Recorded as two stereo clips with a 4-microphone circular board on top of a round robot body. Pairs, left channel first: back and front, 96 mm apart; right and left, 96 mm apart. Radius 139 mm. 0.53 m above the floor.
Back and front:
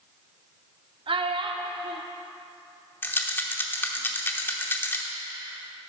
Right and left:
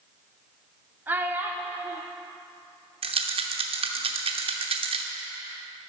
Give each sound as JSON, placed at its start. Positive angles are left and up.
{"t": 1.1, "sound": "a child speaking", "azimuth_deg": 20, "distance_m": 1.1}
{"t": 3.0, "sound": "a rattle", "azimuth_deg": 115, "distance_m": 0.8}